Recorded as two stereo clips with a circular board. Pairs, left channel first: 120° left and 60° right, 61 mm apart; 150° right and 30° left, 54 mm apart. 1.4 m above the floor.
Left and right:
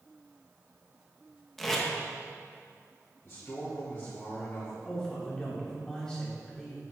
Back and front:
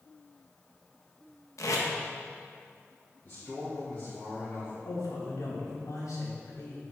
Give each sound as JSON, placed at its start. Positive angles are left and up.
{"t": 1.6, "sound": "tape being pulled", "azimuth_deg": -155, "distance_m": 1.4}
{"t": 3.2, "sound": "a man speaking", "azimuth_deg": 155, "distance_m": 3.5}
{"t": 4.8, "sound": "a man speaking", "azimuth_deg": -160, "distance_m": 3.0}